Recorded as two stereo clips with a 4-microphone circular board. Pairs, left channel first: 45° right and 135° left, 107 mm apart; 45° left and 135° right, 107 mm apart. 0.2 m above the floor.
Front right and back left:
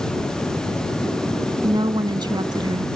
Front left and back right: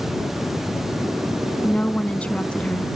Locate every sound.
1.6 s a woman speaking: 120° left